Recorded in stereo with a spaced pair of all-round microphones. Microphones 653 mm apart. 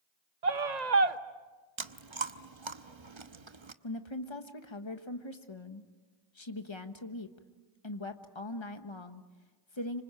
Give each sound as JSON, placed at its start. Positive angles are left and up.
{"t": 0.4, "sound": "a scream", "side_deg": -85, "distance_m": 1.2}
{"t": 1.8, "sound": "chewing", "side_deg": -45, "distance_m": 1.0}
{"t": 3.8, "sound": "a woman speaking", "side_deg": 45, "distance_m": 1.3}